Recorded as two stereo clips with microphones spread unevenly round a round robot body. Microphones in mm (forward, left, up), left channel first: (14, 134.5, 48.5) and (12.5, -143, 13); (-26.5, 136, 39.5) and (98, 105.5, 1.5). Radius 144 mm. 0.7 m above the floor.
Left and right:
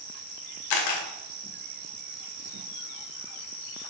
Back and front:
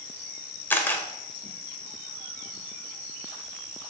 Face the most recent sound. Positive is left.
turn(degrees=90)